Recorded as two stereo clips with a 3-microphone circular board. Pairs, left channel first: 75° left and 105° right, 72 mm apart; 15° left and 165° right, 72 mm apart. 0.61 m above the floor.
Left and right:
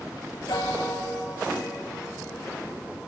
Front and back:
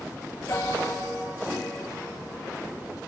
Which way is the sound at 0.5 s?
60° left.